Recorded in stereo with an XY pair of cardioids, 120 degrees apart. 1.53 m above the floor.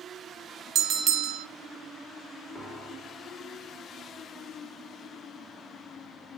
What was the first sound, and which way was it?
A bell, 55° right.